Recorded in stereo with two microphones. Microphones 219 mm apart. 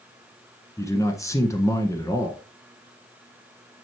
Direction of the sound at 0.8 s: 15° left (ahead or behind).